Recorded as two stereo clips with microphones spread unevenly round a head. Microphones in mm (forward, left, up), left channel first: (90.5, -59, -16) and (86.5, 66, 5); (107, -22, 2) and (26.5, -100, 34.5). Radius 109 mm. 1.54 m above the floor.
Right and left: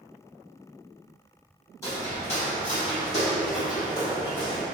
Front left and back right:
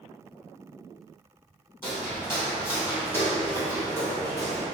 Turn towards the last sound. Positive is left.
turn(degrees=140)